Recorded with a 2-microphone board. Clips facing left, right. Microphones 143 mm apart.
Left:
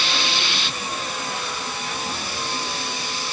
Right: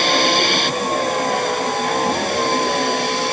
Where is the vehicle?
60° right (ahead or behind); by 3.3 s 65° right (ahead or behind).